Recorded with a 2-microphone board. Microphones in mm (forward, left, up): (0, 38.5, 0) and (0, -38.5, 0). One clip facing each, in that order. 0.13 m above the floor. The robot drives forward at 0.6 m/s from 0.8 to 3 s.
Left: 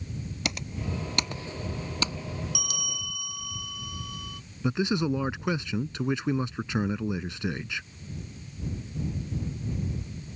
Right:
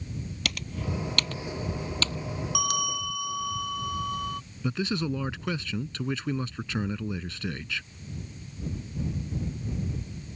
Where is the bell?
50° right (ahead or behind); by 4.4 s 45° right (ahead or behind).